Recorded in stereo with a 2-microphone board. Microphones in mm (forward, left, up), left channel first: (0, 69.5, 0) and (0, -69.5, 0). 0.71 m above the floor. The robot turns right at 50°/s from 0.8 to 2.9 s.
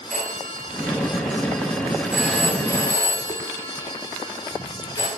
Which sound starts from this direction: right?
A phone ringing, at 0.1 s.